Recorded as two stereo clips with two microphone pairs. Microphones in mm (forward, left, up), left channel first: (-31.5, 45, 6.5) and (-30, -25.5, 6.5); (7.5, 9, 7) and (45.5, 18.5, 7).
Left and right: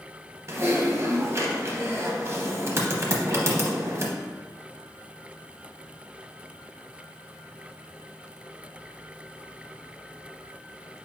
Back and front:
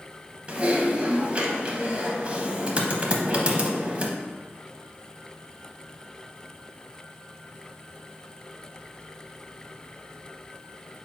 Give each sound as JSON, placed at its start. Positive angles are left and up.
{"t": 0.5, "sound": "typing on a keyboard", "azimuth_deg": -40, "distance_m": 0.7}